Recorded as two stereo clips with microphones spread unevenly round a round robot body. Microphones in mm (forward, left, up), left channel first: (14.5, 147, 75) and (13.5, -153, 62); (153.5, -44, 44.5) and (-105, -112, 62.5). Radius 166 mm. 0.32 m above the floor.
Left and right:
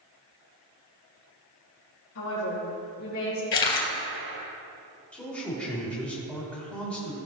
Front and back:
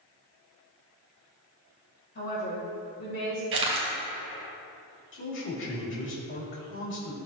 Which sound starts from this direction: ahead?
A man speaking, at 5.1 s.